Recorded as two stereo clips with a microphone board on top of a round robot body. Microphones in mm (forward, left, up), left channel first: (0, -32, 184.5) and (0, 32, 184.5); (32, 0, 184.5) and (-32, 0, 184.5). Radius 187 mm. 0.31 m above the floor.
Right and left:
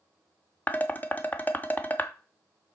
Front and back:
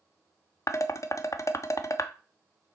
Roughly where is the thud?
I don't hear a thud.